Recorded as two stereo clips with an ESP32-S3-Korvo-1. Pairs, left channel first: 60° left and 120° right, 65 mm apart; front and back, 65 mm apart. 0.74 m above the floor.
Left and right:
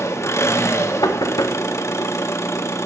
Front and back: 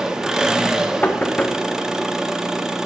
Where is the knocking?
65° left, 0.9 m.